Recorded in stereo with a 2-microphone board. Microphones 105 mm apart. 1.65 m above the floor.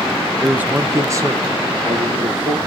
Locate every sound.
0.4 s a man speaking: 10° right (ahead or behind), 0.9 m; by 2.6 s 50° right (ahead or behind), 1.7 m